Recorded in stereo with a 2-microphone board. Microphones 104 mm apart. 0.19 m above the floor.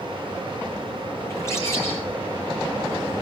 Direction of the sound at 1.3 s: 25° left (ahead or behind).